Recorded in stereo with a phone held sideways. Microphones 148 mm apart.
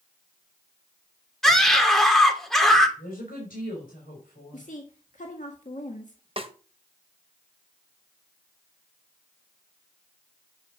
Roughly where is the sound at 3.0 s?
Left.